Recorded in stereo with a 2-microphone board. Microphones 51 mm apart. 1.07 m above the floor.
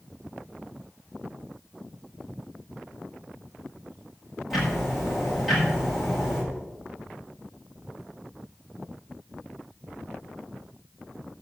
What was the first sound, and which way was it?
Ticking, 10° right (ahead or behind).